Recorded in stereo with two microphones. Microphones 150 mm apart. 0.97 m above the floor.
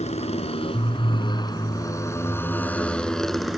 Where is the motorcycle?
50° left (ahead or behind); by 3.6 s centre (ahead or behind).